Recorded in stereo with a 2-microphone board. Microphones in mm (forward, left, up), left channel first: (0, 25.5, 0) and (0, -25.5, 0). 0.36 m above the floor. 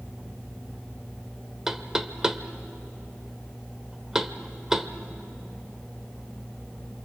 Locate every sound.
1.7 s knocking: 10° right (ahead or behind), 0.9 m